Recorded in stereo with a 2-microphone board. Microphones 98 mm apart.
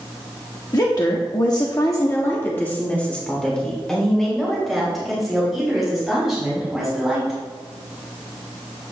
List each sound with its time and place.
0.7 s a woman speaking: 40° left (ahead or behind), 1.1 m; by 7.4 s 5° right (ahead or behind), 5 m